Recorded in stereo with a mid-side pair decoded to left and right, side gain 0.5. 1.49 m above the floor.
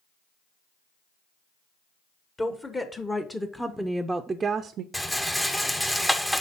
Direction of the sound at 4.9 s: 5° left.